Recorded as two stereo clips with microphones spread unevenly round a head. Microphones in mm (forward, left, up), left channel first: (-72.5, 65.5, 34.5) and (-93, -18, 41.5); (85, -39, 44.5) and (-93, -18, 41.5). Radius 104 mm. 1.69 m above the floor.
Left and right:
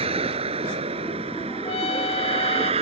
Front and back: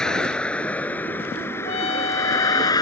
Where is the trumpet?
55° left.